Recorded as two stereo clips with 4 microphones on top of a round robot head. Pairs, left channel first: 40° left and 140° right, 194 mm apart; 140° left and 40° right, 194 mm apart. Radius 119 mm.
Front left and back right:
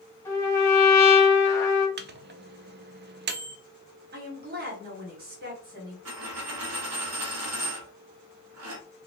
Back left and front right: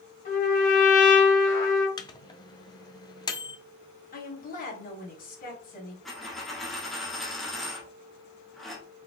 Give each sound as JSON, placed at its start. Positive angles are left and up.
{"t": 0.2, "sound": "a trumpet", "azimuth_deg": 115, "distance_m": 1.5}
{"t": 2.0, "sound": "a microwave", "azimuth_deg": -155, "distance_m": 0.6}
{"t": 4.1, "sound": "a woman speaking", "azimuth_deg": -175, "distance_m": 1.9}
{"t": 6.0, "sound": "a dropped coin", "azimuth_deg": -130, "distance_m": 0.9}